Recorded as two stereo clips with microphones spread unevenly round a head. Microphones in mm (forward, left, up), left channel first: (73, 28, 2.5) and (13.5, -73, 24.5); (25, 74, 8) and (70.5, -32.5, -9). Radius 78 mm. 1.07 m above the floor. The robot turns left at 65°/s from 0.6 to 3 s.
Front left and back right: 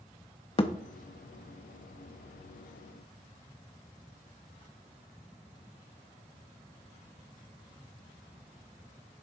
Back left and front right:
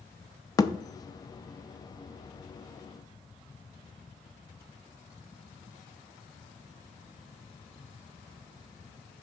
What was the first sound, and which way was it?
A thud, 105° left.